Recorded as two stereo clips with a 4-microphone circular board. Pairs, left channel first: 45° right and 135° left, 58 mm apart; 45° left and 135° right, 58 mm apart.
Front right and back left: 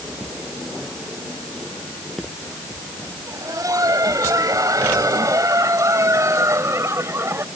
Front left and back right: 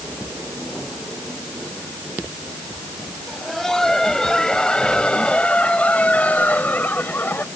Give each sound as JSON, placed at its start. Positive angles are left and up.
{"t": 3.3, "sound": "laughter", "azimuth_deg": 130}